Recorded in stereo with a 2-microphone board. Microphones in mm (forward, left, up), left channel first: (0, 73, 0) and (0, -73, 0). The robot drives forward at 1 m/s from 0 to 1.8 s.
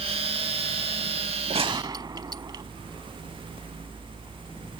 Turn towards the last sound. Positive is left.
turn(degrees=-30)  # may be behind; listen again after turning